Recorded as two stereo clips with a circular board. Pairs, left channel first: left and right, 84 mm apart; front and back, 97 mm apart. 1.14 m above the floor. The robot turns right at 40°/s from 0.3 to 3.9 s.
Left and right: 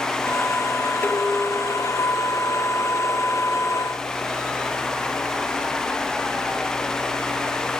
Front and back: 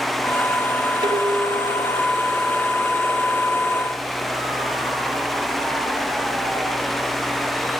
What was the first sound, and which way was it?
Dishes clattering, 155° left.